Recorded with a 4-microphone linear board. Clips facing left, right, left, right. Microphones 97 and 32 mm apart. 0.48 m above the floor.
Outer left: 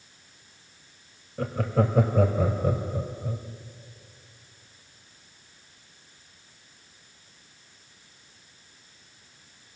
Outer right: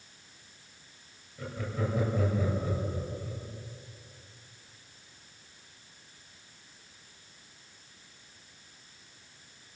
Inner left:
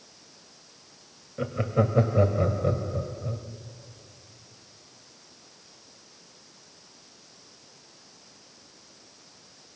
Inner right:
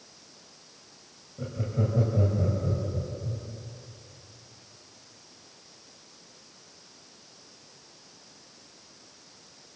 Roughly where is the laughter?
Left.